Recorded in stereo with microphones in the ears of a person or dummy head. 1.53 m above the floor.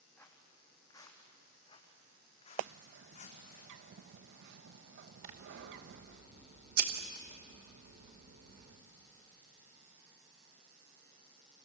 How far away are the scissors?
About 2.5 m.